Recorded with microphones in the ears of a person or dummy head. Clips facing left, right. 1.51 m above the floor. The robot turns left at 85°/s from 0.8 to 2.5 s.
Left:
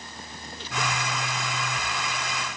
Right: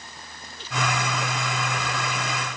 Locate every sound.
Only background noise.